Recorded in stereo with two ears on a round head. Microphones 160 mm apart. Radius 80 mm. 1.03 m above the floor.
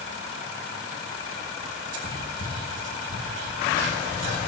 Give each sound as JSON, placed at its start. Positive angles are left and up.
{"t": 1.9, "sound": "whispering", "side_deg": -75, "distance_m": 2.5}